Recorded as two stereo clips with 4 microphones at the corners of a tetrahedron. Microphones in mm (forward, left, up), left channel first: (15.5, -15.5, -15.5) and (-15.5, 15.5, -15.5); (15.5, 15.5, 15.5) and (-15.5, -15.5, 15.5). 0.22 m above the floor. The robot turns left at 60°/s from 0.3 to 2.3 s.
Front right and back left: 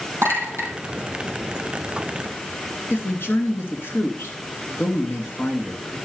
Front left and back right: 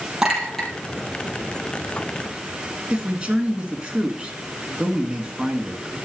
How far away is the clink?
About 3.5 m.